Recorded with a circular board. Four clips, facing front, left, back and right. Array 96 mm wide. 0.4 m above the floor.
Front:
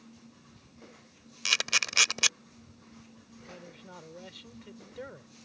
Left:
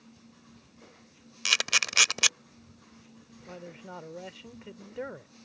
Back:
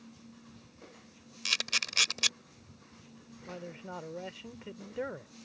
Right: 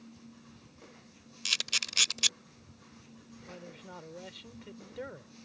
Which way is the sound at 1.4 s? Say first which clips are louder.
Left 10 dB, front 5 dB; 65° left.